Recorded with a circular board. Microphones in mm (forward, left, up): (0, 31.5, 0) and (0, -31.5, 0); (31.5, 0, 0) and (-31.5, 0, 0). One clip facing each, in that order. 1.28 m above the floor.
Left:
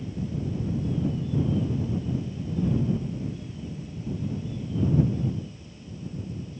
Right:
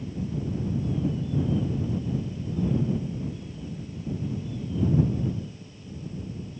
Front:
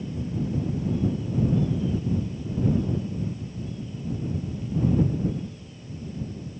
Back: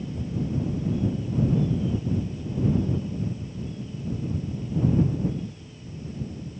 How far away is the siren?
No siren in this recording.